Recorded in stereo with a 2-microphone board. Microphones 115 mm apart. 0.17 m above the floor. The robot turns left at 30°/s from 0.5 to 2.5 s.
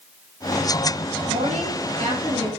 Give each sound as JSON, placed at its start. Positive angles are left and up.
{"t": 1.3, "sound": "a woman speaking", "azimuth_deg": -90, "distance_m": 5.0}